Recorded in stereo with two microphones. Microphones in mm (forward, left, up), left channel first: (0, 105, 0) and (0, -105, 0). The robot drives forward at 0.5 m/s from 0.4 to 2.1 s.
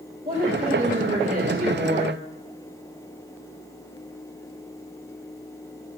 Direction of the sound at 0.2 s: 40° right (ahead or behind).